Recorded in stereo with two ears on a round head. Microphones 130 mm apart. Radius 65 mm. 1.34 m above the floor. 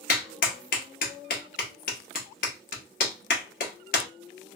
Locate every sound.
0.1 s a clap: 60° left (ahead or behind), 1.0 m